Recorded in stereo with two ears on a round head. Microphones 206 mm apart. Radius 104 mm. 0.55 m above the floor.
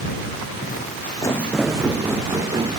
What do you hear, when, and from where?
0.6 s footsteps: 45° left (ahead or behind); by 2.8 s 20° right (ahead or behind)